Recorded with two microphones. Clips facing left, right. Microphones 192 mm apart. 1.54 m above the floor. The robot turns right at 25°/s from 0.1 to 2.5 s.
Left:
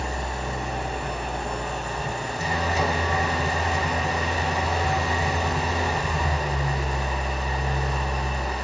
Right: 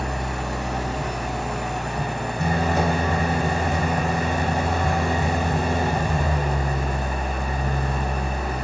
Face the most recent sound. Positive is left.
turn(degrees=-55)